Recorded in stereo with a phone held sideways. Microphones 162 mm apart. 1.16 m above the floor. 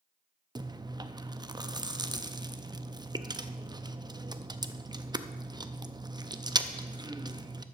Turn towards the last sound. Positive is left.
turn(degrees=-25)  # may be behind; listen again after turning